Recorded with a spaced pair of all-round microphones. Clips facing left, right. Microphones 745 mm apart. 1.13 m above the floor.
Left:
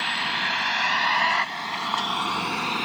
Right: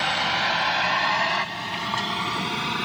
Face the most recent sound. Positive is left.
turn(degrees=-45)  # may be behind; listen again after turning